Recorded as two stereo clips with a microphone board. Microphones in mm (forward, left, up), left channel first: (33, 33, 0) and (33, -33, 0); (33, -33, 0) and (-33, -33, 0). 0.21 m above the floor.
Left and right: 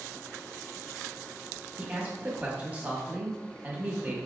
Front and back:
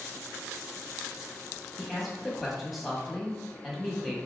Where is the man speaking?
90° right, 1.1 m.